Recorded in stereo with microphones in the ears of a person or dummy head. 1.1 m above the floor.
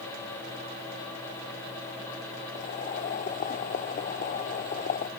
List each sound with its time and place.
2.5 s boiling: 45° left (ahead or behind)